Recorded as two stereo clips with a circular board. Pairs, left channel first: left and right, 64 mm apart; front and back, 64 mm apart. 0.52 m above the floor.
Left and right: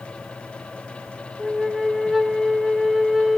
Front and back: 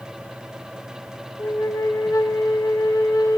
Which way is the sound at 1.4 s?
5° right.